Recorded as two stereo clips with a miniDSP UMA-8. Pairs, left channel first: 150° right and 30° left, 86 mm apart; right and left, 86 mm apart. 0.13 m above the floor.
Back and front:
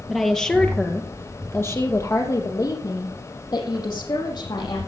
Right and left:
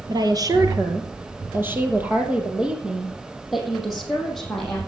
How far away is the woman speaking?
About 2.5 m.